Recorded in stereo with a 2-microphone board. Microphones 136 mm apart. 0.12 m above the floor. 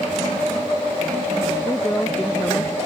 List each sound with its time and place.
1.6 s a woman speaking: 15° left (ahead or behind)